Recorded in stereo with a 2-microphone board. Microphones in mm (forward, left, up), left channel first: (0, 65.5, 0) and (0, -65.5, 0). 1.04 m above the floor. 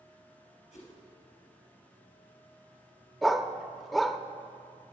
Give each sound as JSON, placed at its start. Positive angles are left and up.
{"t": 0.7, "sound": "a whoosh", "side_deg": 75, "distance_m": 3.5}
{"t": 3.2, "sound": "a dog barking", "side_deg": 0, "distance_m": 0.5}